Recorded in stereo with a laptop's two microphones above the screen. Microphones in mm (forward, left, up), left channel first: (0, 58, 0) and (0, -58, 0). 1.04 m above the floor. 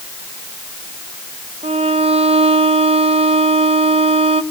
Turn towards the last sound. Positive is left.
turn(degrees=-60)  # may be behind; listen again after turning